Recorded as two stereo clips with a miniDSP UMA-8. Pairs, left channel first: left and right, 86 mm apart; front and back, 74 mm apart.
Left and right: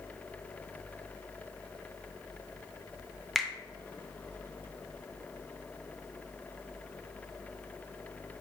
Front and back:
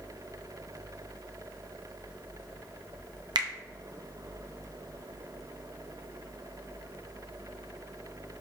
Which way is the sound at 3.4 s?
Straight behind.